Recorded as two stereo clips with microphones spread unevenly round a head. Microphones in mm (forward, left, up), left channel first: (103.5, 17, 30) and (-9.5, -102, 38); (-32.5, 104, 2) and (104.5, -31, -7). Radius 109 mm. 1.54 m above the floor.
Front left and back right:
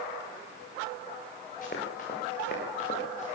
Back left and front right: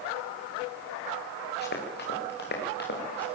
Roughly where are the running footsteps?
Left.